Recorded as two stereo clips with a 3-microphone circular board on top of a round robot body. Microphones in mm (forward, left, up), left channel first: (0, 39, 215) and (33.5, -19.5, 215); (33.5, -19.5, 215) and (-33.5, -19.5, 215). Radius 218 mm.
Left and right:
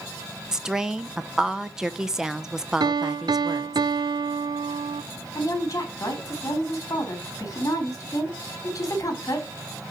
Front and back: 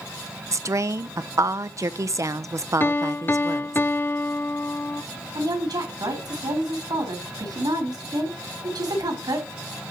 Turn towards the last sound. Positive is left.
turn(degrees=165)